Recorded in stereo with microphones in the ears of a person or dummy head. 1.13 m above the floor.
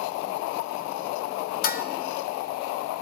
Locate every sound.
1.6 s dishes clattering: 40° left (ahead or behind), 0.6 m